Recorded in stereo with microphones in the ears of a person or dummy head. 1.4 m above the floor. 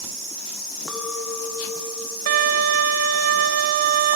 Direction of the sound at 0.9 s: 10° right (ahead or behind).